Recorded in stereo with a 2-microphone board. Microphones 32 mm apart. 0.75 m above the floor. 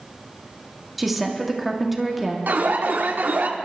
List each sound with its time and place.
1.0 s a woman speaking: centre (ahead or behind), 1.7 m
2.5 s an alarm: 75° right (ahead or behind), 1.1 m